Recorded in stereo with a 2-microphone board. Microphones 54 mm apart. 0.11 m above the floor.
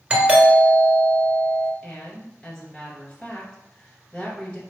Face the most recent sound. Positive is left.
turn(degrees=15)  # may be behind; listen again after turning